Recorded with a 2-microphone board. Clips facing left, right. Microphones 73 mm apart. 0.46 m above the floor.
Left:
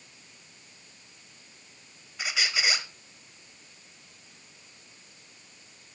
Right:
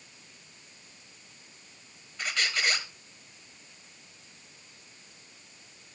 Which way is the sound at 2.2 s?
5° left (ahead or behind).